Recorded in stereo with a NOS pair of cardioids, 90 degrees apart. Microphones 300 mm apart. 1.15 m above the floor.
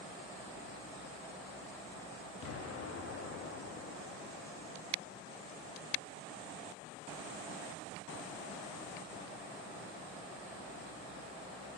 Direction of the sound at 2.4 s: 55° left.